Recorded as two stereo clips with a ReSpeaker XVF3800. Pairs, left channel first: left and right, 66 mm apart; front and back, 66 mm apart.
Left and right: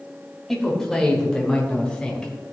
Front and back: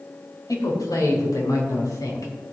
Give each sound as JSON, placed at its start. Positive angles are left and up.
{"t": 0.5, "sound": "a man speaking", "azimuth_deg": 5, "distance_m": 3.5}